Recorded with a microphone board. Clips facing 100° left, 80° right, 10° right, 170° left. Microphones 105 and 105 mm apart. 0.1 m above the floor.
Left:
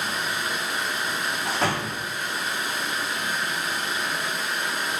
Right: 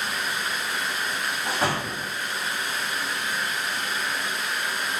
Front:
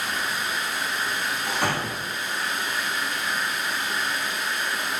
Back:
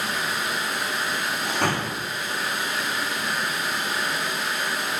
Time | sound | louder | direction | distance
0.0 | running water | left 1 dB, back 1 dB | 165° left | 0.8 m
1.4 | a door slam | even, back 1 dB | 165° right | 1.7 m